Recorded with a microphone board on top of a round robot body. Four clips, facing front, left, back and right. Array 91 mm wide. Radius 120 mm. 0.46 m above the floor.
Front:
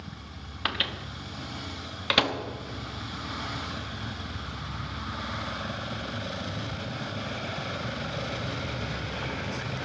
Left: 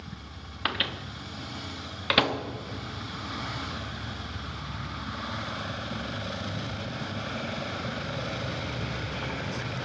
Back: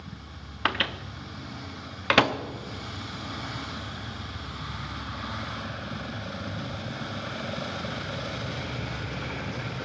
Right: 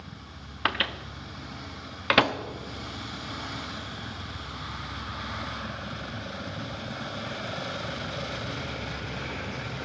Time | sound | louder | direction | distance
0.7 | a microwave | right 3 dB, back 4 dB | 140° right | 1.1 m